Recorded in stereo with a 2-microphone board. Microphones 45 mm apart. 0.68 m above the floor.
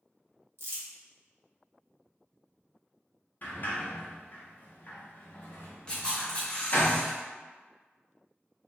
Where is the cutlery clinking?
No cutlery clinking in this recording.